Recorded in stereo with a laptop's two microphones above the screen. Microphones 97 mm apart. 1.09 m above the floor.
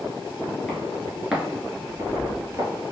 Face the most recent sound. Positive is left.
turn(degrees=-35)  # may be behind; listen again after turning